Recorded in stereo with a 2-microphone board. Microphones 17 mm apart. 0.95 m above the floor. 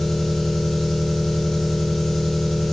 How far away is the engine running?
About 2.0 m.